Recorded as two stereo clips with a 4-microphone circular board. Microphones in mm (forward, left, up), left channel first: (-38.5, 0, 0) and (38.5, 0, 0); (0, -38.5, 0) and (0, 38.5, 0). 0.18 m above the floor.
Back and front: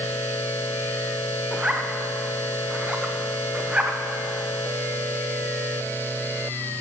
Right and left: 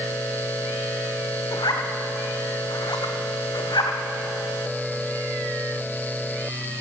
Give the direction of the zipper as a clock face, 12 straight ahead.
3 o'clock.